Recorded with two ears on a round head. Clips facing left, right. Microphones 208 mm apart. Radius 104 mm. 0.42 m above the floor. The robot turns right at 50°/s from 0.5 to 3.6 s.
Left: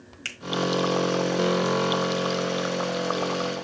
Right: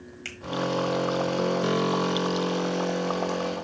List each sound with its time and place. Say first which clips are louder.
0.2 s a finger snap: right 4 dB; 10° left (ahead or behind), 1.3 m